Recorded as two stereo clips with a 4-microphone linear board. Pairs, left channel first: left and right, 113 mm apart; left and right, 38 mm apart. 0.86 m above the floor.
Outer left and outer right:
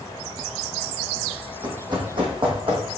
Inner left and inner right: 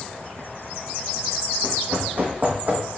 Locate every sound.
1.6 s running footsteps: 40° right (ahead or behind), 2.5 m; by 2.8 s 55° right (ahead or behind), 3 m